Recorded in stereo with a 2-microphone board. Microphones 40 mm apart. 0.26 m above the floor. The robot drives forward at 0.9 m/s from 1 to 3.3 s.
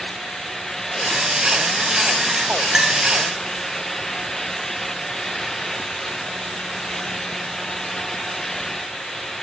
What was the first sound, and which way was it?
A clink, 5° right (ahead or behind).